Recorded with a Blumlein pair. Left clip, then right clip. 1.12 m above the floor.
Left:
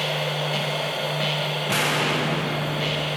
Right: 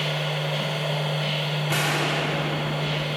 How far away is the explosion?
About 0.9 m.